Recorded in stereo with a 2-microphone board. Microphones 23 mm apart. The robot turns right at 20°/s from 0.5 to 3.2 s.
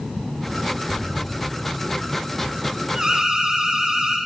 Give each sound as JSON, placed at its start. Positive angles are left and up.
{"t": 0.9, "sound": "an explosion", "side_deg": -70, "distance_m": 3.0}
{"t": 3.0, "sound": "an alarm", "side_deg": -35, "distance_m": 1.8}